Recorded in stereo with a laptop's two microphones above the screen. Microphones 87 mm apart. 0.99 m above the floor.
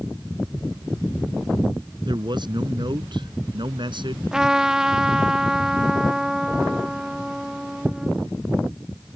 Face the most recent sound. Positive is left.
turn(degrees=-5)  # may be behind; listen again after turning